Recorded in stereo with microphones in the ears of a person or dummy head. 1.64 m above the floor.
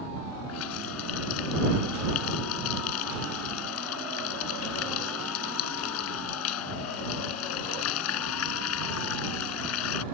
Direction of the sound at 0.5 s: 85° left.